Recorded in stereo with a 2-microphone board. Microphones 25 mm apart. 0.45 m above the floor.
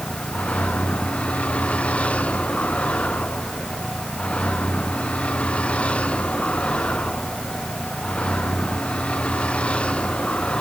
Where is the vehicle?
65° left (ahead or behind); by 10.6 s 50° left (ahead or behind).